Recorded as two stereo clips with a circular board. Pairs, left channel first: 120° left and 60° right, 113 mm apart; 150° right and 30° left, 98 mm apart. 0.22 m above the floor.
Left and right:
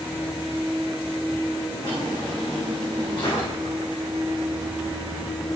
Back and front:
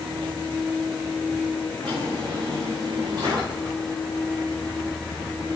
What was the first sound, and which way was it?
A drawer, 75° left.